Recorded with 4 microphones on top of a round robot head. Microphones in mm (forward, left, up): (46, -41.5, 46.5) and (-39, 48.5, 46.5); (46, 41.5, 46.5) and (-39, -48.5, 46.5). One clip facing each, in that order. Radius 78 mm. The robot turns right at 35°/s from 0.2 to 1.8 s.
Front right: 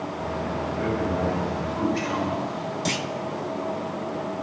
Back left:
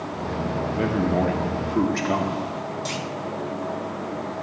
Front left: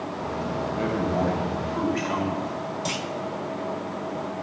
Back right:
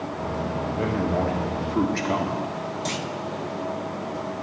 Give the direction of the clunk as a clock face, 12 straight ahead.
1 o'clock.